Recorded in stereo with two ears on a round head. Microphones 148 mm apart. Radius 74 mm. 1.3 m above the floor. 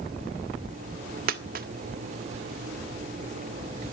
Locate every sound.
1.3 s a dropped coin: 55° right (ahead or behind), 1.5 m